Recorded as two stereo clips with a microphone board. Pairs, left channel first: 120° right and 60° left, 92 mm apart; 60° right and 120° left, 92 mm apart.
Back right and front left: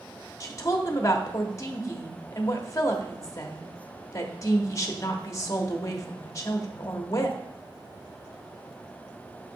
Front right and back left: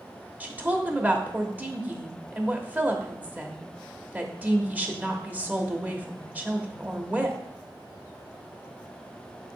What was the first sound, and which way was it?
A woman speaking, 170° right.